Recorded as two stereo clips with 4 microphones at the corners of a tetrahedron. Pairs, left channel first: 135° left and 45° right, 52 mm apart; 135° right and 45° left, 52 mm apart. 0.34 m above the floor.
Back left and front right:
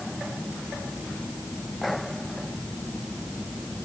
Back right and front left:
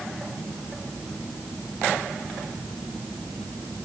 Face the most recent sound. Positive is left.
No sound to turn to.